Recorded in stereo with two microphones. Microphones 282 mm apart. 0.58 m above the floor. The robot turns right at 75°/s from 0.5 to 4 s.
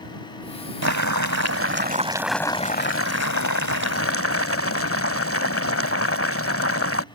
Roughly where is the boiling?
Right.